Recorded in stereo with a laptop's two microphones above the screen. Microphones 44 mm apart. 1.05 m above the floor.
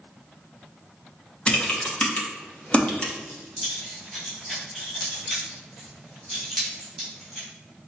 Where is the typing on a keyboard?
25° left (ahead or behind), 1.0 m.